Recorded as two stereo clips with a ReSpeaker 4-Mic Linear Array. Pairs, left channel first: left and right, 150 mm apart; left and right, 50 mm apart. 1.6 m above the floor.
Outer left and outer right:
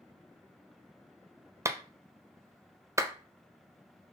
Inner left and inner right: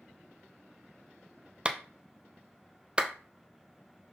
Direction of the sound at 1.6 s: 20° right (ahead or behind).